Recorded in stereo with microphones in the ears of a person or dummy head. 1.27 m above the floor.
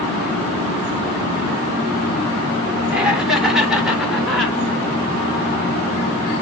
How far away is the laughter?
About 3 m.